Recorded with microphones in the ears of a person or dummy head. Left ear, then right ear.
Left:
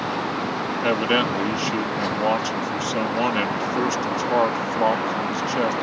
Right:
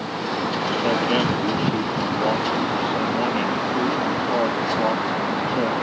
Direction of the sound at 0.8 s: 60° left (ahead or behind).